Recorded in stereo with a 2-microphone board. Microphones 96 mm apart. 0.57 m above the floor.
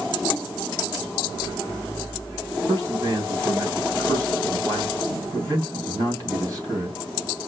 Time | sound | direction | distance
2.7 | a man speaking | 40° right (ahead or behind) | 3 m